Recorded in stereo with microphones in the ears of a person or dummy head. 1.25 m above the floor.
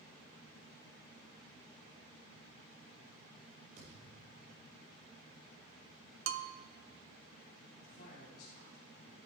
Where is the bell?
65° right (ahead or behind), 0.6 m.